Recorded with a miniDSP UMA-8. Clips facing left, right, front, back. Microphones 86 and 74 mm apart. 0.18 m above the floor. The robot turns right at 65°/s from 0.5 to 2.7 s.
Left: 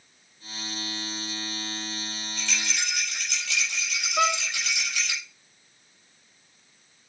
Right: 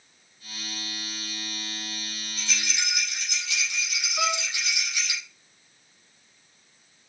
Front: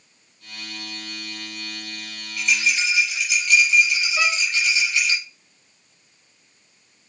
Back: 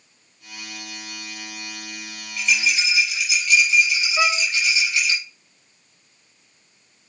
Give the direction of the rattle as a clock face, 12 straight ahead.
10 o'clock.